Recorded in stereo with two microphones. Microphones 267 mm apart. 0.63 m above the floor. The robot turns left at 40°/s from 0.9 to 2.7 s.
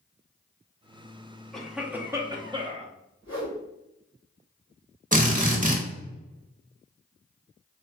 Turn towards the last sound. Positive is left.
turn(degrees=-30)  # may be behind; listen again after turning